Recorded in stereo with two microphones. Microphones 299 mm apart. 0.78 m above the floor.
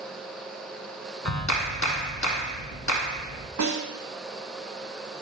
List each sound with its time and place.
1.2 s a clap: 65° left (ahead or behind), 1.0 m
3.6 s a snare drum: 65° right (ahead or behind), 1.2 m